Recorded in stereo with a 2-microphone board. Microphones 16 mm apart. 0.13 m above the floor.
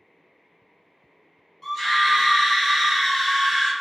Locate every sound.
1.6 s a scream: 15° left (ahead or behind), 1.5 m